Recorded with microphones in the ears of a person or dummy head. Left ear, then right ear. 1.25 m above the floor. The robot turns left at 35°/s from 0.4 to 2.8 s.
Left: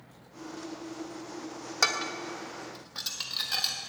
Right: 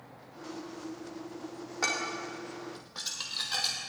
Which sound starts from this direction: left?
Dishes clattering, at 1.8 s.